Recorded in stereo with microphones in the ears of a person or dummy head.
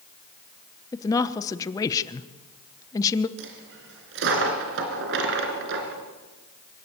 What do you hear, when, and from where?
0.9 s a woman speaking: 15° left (ahead or behind), 0.9 m
3.4 s a dropped coin: 70° right (ahead or behind), 3 m